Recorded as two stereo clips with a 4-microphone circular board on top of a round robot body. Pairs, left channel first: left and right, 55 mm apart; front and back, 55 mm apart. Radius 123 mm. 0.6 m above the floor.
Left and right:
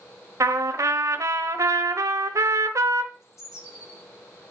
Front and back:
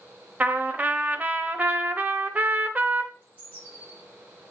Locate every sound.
0.4 s a trumpet: 115° right, 0.8 m
3.1 s a bird: 120° left, 5.5 m